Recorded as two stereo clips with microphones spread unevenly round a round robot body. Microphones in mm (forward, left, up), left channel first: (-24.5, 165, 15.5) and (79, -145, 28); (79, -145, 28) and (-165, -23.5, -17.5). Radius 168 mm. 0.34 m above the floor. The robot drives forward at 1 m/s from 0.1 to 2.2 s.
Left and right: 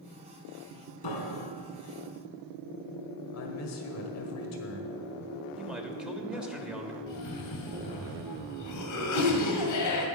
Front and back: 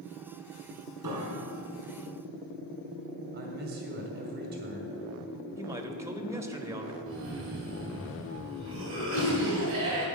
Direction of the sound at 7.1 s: 125° left.